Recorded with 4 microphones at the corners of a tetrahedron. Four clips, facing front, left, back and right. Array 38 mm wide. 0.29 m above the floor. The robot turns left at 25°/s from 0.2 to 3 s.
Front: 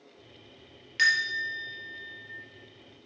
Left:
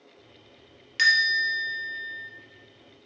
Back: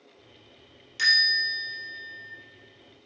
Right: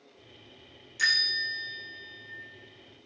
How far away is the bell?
About 3 m.